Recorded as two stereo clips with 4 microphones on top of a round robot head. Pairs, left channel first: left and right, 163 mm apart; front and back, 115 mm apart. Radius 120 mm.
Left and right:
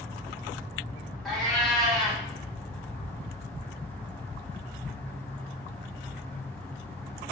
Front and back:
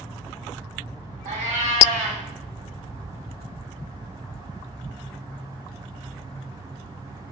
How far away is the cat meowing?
About 1.8 m.